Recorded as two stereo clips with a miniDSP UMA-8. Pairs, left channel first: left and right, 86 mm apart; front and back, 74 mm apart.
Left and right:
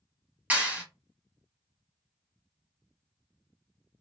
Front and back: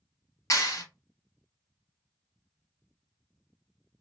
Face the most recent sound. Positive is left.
turn(degrees=-25)